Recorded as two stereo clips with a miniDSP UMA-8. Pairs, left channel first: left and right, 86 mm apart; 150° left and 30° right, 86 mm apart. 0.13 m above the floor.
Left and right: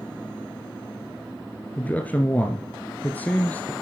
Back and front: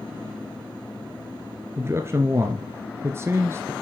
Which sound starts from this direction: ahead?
A man speaking, at 1.8 s.